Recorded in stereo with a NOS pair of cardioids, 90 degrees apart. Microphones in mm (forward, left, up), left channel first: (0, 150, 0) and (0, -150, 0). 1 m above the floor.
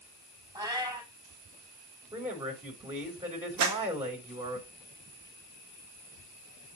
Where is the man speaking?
15° right, 3.5 m.